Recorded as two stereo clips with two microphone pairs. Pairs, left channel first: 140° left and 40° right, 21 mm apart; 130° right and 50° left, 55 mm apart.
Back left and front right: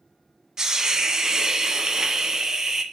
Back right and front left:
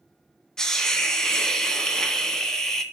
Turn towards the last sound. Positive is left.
turn(degrees=-65)